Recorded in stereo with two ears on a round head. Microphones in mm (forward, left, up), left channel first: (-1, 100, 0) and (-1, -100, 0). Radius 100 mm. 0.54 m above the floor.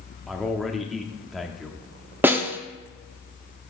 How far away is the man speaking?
About 0.6 m.